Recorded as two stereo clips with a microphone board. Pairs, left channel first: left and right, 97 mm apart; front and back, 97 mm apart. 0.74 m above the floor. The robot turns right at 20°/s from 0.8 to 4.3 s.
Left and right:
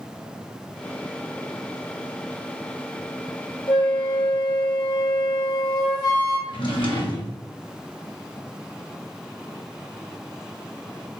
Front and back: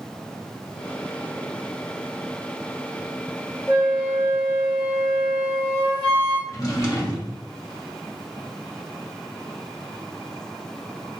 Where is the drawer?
55° left, 1.0 m.